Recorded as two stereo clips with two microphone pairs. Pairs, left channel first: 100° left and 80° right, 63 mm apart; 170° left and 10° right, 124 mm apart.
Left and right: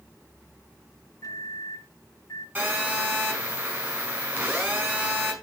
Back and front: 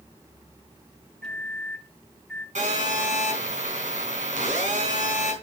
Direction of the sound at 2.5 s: 20° right.